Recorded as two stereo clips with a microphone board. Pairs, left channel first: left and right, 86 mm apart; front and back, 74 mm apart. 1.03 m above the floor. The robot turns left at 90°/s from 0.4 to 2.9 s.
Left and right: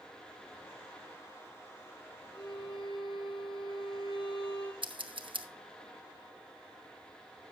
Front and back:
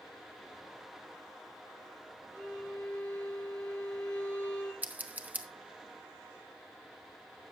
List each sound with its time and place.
2.3 s a violin: 125° left, 5 m; by 4.7 s 75° left, 5 m
4.8 s scissors: 110° right, 0.9 m